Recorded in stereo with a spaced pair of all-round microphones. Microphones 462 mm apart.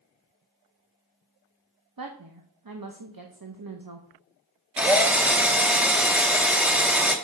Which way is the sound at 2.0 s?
50° right (ahead or behind).